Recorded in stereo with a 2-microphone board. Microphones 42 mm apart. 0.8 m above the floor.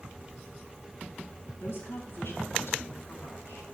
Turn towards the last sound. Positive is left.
turn(degrees=70)  # may be behind; listen again after turning